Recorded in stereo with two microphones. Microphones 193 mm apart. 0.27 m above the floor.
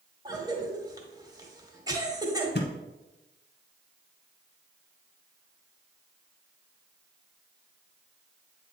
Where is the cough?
20° right (ahead or behind), 1.3 m.